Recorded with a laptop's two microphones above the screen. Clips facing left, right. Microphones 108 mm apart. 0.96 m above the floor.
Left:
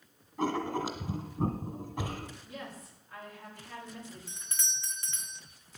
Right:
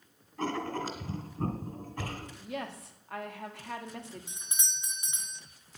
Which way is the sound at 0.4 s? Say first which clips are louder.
Left 2 dB; 15° left (ahead or behind).